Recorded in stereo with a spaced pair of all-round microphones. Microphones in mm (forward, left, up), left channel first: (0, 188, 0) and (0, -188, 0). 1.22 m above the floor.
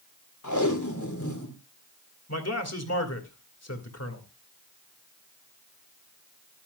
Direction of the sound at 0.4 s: 50° left (ahead or behind).